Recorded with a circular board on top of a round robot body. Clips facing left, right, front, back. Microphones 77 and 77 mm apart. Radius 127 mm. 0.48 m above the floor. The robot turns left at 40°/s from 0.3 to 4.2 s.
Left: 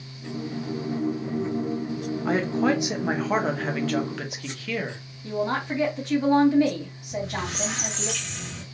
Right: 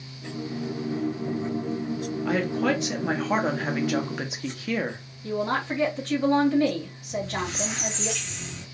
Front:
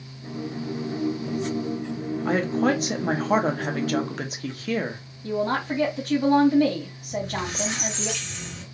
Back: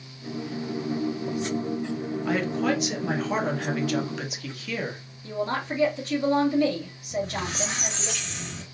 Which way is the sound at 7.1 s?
115° left.